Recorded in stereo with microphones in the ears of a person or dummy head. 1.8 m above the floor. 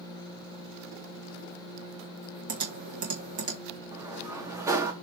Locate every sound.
2.5 s typing on a keyboard: 50° right (ahead or behind), 1.3 m
3.9 s a sliding door: 15° right (ahead or behind), 0.8 m